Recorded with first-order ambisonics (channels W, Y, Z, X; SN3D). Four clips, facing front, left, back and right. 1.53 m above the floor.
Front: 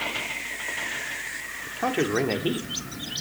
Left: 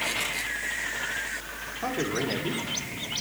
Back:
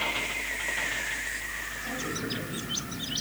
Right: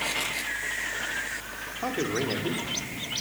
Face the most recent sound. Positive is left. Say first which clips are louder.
# even, front 8 dB
turn(degrees=-5)